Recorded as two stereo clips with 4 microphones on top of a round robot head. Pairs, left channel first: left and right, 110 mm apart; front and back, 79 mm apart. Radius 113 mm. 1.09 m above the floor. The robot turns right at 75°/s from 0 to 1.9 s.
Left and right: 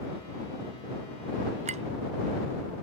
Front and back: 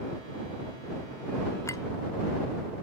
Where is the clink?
65° right; by 1.8 s 50° right.